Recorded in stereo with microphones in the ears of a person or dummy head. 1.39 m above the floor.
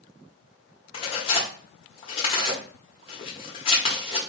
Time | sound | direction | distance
0.9 | tearing paper | 35° left (ahead or behind) | 0.9 m